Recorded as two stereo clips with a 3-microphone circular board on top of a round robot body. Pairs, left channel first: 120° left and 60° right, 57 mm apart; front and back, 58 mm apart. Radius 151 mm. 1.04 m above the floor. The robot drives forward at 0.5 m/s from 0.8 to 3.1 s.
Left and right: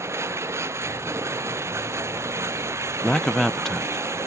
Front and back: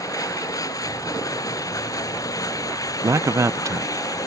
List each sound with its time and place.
0.0 s running water: 20° right
3.0 s a man speaking: 155° right; by 4.3 s 160° right